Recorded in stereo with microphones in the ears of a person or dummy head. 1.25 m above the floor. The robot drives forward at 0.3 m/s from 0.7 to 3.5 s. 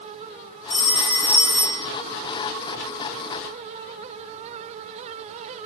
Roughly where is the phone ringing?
Left.